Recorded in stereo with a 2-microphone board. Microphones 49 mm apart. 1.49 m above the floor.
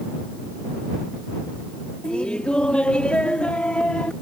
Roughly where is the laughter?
Left.